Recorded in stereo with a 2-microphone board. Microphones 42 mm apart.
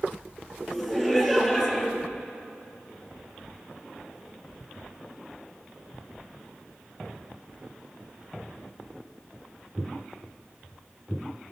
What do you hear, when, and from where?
0.7 s laughter: centre (ahead or behind), 2.5 m